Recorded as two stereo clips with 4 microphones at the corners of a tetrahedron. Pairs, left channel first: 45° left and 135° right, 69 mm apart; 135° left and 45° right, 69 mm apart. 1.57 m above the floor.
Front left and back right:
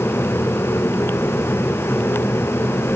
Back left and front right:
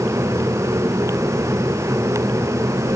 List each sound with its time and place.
Only background noise.